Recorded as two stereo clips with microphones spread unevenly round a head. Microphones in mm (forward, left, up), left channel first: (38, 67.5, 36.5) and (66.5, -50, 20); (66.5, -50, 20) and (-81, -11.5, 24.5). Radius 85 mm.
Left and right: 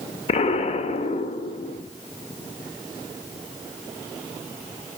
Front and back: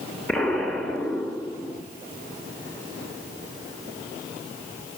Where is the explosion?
70° left, 1.3 m.